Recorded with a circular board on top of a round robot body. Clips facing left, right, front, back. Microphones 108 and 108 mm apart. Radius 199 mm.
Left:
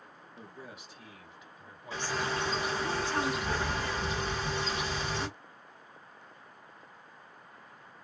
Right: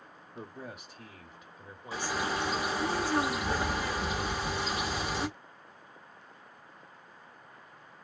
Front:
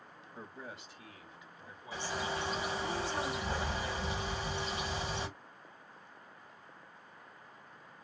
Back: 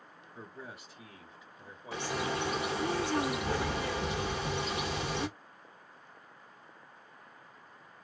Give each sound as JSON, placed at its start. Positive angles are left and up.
{"t": 0.3, "sound": "a man speaking", "azimuth_deg": -90, "distance_m": 1.3}
{"t": 1.9, "sound": "a bird", "azimuth_deg": -170, "distance_m": 1.2}